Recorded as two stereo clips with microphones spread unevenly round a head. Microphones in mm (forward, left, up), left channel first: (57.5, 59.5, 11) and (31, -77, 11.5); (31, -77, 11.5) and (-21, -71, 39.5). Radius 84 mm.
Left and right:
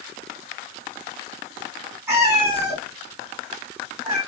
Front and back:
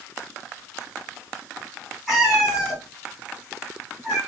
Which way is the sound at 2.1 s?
150° right.